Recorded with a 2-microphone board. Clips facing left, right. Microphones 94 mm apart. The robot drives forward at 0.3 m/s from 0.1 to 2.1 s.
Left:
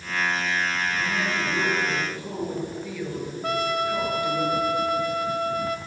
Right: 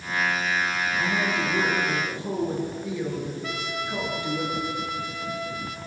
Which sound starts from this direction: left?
A trumpet, at 3.4 s.